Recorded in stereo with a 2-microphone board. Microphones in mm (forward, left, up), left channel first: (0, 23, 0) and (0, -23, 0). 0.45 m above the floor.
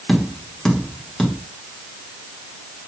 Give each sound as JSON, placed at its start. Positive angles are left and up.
{"t": 0.1, "sound": "tapping", "side_deg": 10, "distance_m": 1.3}